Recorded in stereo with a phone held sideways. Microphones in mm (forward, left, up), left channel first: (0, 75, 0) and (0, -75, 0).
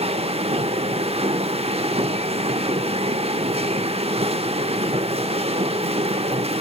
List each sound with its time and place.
0.0 s a machine running: 40° right (ahead or behind), 0.9 m